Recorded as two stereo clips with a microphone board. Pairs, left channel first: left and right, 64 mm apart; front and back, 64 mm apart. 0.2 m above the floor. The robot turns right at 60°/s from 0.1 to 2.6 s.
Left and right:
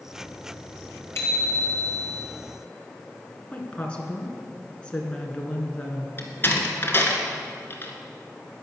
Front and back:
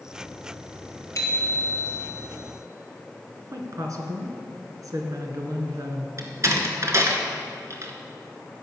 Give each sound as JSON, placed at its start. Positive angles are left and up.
{"t": 1.1, "sound": "a bicycle bell", "azimuth_deg": 40, "distance_m": 3.0}
{"t": 3.5, "sound": "a woman speaking", "azimuth_deg": 160, "distance_m": 2.0}
{"t": 6.2, "sound": "a door slam", "azimuth_deg": 145, "distance_m": 1.9}